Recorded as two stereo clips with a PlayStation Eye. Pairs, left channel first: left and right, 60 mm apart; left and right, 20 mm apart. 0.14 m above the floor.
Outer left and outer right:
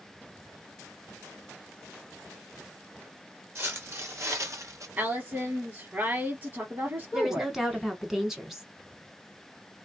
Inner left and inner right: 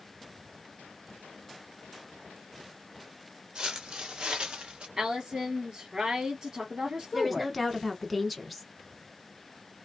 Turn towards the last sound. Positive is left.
turn(degrees=-5)  # may be behind; listen again after turning